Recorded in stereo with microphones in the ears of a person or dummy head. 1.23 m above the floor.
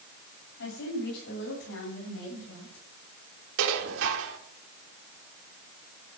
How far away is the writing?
I don't hear writing.